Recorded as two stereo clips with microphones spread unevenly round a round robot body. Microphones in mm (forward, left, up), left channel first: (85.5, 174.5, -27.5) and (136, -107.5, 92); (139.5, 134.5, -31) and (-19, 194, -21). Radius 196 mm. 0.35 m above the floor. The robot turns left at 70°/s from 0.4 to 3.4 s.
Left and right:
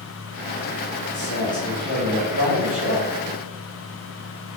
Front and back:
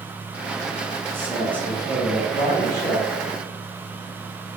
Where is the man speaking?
85° left, 2 m; by 3.1 s 50° right, 2 m.